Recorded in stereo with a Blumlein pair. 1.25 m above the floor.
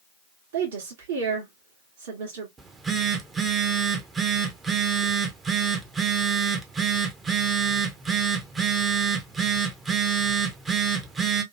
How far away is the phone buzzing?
About 0.7 m.